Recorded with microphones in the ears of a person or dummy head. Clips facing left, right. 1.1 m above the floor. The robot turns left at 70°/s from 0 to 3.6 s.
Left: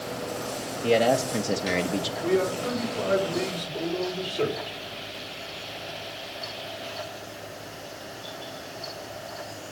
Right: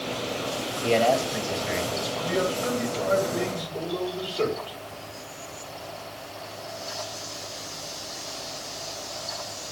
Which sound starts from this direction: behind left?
A man speaking, at 2.2 s.